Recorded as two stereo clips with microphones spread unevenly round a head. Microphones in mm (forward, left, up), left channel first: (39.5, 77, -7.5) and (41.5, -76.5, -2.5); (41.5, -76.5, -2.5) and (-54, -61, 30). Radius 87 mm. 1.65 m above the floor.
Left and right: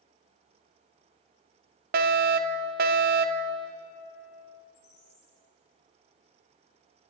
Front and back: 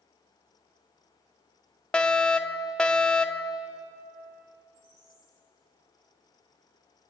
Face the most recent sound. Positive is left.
turn(degrees=125)